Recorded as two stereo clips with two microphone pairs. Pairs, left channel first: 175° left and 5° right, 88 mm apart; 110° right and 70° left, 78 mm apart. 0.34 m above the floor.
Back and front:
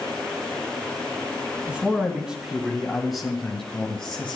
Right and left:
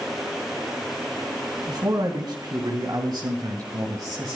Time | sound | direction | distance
1.7 | a man speaking | 70° left | 3 m